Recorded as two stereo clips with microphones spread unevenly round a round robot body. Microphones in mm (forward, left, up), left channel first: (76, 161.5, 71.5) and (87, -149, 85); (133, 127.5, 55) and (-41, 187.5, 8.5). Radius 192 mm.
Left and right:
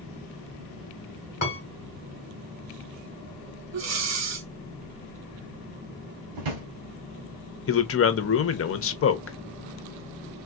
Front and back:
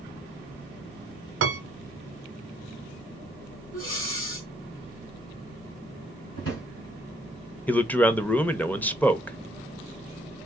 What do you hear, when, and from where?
1.4 s a piano: 155° left, 0.7 m
3.7 s breathing: 50° right, 1.0 m
6.3 s a drawer: 75° right, 1.2 m
7.7 s a man speaking: 75° left, 0.8 m